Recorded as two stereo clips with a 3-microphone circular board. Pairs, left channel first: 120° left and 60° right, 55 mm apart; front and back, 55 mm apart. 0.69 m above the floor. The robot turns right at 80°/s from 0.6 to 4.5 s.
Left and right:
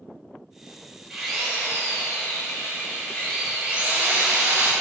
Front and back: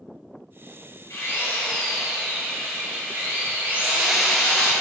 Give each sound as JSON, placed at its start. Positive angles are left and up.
{"t": 1.1, "sound": "a drill", "azimuth_deg": 20, "distance_m": 2.5}